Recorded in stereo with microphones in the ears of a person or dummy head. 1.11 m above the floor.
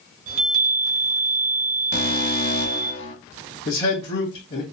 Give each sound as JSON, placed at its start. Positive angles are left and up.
{"t": 0.3, "sound": "a chime", "side_deg": -70, "distance_m": 1.2}
{"t": 1.9, "sound": "an alarm", "side_deg": 60, "distance_m": 1.1}
{"t": 3.6, "sound": "a man speaking", "side_deg": 25, "distance_m": 0.8}